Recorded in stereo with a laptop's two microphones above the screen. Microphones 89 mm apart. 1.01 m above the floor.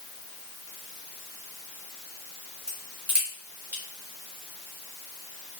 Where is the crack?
20° right (ahead or behind), 1.4 m.